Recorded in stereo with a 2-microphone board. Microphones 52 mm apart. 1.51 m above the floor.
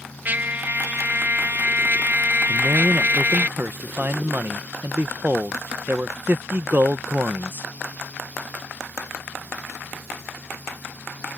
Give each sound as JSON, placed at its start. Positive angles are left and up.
{"t": 0.2, "sound": "a trumpet", "side_deg": -35}
{"t": 2.5, "sound": "a man speaking", "side_deg": -40}